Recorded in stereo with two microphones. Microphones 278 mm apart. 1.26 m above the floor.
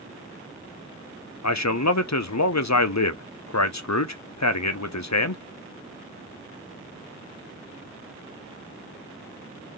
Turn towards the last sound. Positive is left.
turn(degrees=75)  # may be behind; listen again after turning